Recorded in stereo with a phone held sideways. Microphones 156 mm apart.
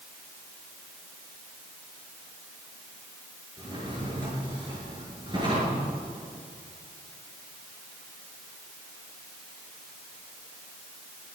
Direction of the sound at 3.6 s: 30° right (ahead or behind).